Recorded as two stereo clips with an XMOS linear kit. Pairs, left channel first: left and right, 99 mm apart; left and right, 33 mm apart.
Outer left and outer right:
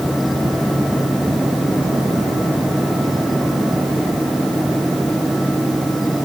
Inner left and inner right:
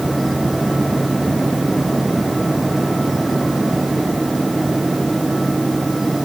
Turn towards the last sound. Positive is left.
No sound to turn to.